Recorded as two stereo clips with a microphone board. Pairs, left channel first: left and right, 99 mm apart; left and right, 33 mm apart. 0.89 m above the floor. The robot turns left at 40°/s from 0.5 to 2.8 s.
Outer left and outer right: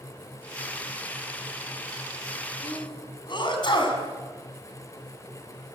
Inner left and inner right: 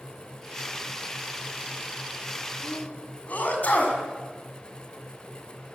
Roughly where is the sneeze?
Left.